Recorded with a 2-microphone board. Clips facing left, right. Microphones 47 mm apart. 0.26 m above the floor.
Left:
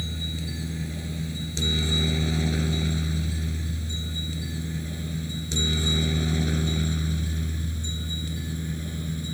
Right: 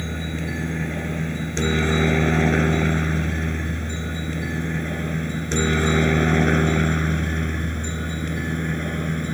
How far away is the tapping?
No tapping in this recording.